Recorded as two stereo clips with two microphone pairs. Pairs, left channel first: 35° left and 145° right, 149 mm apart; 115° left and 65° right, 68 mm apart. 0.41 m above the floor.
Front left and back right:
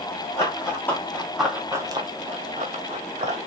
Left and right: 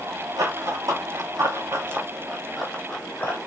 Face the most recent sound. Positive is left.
turn(degrees=180)